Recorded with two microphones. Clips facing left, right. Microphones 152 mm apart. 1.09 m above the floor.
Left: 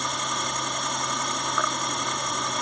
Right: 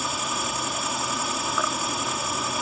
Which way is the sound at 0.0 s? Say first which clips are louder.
Right 1 dB; 5° right (ahead or behind).